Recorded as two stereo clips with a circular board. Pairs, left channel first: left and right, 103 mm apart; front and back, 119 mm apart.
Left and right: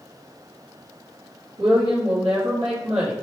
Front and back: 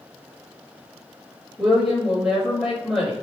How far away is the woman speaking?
About 1.6 m.